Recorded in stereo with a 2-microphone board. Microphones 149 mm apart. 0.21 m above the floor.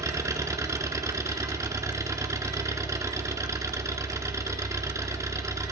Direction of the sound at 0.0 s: 20° right (ahead or behind).